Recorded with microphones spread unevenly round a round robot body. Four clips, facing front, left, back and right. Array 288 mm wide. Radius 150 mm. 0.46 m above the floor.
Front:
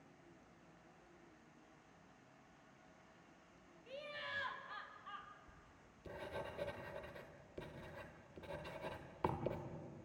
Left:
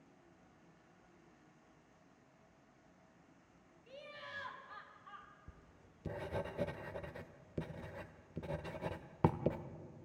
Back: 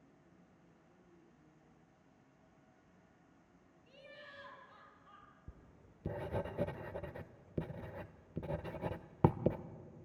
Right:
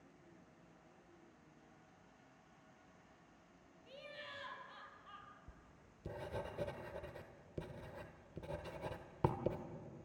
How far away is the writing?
About 0.7 m.